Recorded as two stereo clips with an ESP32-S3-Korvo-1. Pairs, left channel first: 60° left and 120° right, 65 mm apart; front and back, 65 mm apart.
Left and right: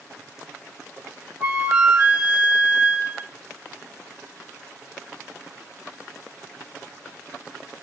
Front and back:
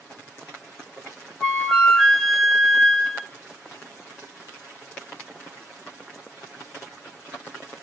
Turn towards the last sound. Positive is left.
turn(degrees=-70)